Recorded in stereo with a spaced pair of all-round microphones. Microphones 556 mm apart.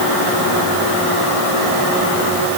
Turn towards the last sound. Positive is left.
No sound to turn to.